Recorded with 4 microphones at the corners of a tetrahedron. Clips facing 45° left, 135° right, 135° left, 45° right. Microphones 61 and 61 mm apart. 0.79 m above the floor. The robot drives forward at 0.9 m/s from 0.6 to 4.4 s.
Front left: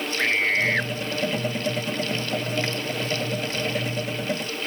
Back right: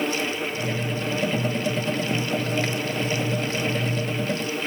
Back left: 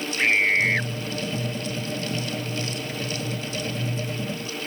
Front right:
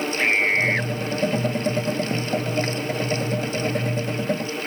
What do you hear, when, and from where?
0.2 s a scream: 45° left